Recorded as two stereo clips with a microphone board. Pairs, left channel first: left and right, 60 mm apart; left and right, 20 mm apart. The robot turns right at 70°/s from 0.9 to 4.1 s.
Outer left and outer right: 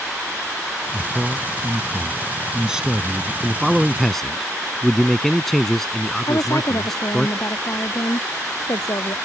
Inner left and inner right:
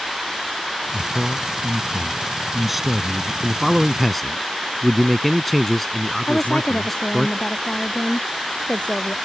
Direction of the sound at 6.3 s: 80° left.